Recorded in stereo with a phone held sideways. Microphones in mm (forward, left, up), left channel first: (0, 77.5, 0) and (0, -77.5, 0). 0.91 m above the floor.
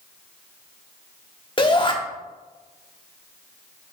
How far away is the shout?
About 1.5 m.